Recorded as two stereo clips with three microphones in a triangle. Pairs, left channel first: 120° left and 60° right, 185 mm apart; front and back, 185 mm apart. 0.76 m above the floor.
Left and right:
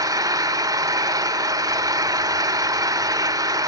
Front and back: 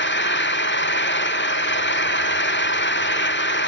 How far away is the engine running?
About 1.4 m.